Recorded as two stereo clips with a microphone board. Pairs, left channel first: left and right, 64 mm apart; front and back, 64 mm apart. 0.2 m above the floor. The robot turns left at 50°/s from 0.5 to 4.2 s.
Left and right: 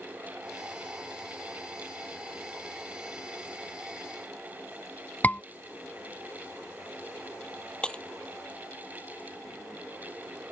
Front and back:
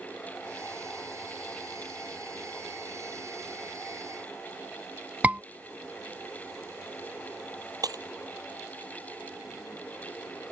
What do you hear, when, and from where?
5.2 s a scream: 130° left
7.8 s breaking glass: 165° left